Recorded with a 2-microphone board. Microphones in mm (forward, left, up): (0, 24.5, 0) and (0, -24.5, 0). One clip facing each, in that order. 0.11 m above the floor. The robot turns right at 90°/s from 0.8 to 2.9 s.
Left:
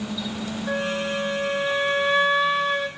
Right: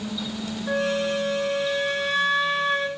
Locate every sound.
0.7 s a flute: 5° left (ahead or behind), 0.7 m; by 2.9 s 10° right (ahead or behind), 0.7 m